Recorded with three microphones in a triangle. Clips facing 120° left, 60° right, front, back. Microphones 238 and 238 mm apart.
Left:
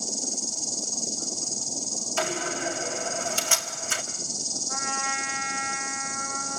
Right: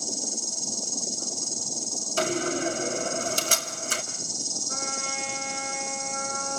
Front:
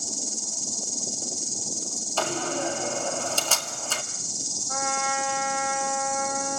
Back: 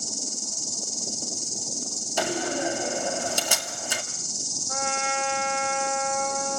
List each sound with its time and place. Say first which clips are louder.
0.0 s an insect: left 1 dB, even; 135° right, 3 m
2.2 s a door slam: right 5 dB, back 1 dB; 105° right, 1.9 m
4.7 s a trumpet: right 1 dB, back 1 dB; 120° right, 5 m